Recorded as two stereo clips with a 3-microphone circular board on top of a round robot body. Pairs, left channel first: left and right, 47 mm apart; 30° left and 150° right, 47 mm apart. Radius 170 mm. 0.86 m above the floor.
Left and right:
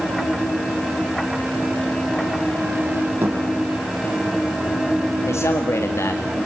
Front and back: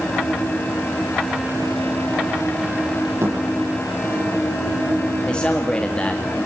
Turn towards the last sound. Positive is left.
turn(degrees=95)